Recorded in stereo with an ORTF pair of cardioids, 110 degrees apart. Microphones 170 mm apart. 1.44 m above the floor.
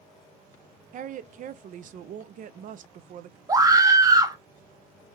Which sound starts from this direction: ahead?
A scream, at 3.5 s.